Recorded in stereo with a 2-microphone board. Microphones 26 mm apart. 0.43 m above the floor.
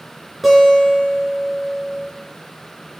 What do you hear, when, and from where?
0.4 s a guitar: 5° right (ahead or behind), 4 m